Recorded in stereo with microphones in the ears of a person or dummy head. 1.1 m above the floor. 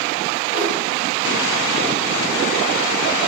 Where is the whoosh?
25° left (ahead or behind), 1.3 m.